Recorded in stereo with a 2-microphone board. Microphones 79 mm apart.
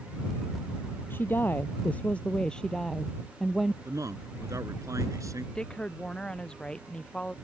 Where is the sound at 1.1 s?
25° left (ahead or behind); by 3.8 s 5° right (ahead or behind).